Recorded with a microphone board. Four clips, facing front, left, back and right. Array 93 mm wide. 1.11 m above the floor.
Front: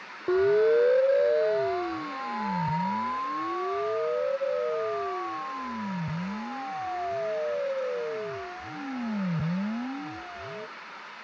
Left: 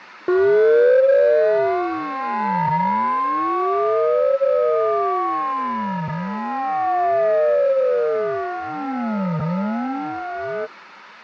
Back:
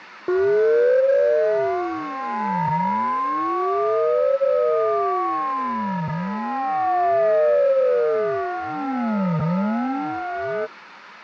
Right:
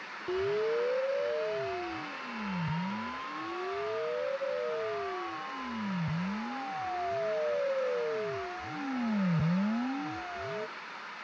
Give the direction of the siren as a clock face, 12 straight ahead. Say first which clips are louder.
Left 17 dB, back 5 dB; 9 o'clock.